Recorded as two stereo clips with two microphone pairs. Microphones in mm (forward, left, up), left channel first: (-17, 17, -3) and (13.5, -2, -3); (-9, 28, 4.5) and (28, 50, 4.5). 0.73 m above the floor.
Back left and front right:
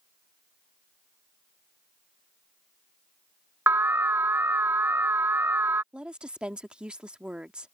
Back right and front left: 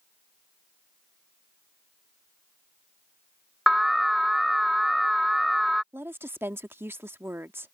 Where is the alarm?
50° right.